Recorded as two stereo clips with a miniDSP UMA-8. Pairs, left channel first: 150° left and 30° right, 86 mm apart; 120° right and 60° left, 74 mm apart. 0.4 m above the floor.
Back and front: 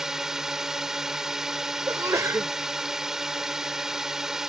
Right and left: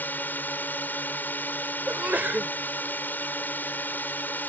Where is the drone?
105° right.